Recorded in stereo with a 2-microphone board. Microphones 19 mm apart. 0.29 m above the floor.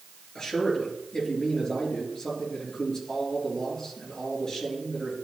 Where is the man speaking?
35° left (ahead or behind), 4.5 m.